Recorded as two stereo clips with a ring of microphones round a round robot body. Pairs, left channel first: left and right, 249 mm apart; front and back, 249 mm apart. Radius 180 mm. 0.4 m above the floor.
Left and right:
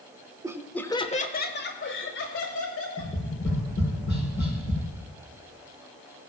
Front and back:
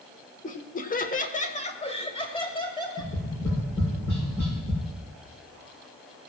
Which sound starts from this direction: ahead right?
Laughter, at 0.4 s.